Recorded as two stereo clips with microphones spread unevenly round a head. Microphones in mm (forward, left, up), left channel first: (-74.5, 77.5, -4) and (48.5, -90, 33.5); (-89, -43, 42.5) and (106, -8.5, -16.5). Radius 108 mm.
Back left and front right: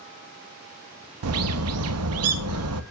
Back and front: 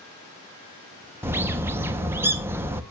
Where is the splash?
No splash in this recording.